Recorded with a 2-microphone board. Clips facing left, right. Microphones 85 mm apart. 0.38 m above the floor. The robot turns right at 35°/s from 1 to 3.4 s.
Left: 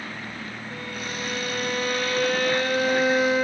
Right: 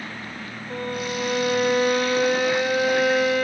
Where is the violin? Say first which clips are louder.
Right 9 dB; 70° right, 0.6 m; by 3.4 s 15° left, 0.6 m.